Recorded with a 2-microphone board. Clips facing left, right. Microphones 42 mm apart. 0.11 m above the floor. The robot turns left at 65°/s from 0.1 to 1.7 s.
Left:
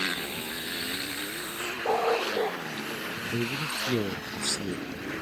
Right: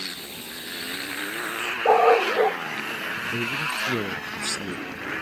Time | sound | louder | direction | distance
0.0 | a motorcycle | left 5 dB | 40° left | ?
1.9 | a dog barking | right 9 dB | 80° right | ?
3.3 | a man speaking | right 2 dB | 20° right (ahead or behind) | ?